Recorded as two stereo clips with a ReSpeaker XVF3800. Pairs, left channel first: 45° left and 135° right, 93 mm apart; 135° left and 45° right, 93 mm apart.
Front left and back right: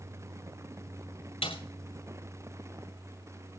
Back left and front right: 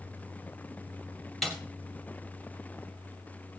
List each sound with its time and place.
1.4 s a snare drum: 45° left, 2 m